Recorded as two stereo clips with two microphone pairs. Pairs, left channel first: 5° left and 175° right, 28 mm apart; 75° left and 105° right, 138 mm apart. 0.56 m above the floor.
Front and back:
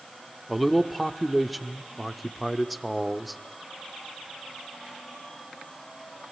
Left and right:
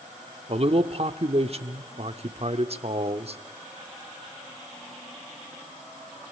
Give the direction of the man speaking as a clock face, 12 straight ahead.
3 o'clock.